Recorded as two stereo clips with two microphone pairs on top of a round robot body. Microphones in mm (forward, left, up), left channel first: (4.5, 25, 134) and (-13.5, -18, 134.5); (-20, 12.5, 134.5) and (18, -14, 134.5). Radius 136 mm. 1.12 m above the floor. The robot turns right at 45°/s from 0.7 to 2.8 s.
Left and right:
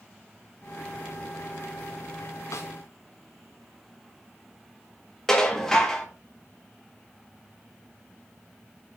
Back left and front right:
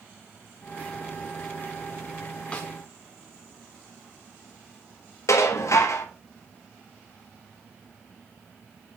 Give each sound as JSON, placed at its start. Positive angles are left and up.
{"t": 2.5, "sound": "a snare drum", "azimuth_deg": 75, "distance_m": 0.6}
{"t": 5.3, "sound": "dishes clattering", "azimuth_deg": 145, "distance_m": 1.1}